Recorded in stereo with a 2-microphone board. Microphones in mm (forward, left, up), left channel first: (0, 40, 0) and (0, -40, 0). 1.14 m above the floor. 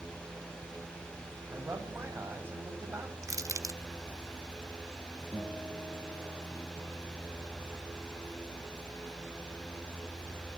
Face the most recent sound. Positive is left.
turn(degrees=40)  # may be behind; listen again after turning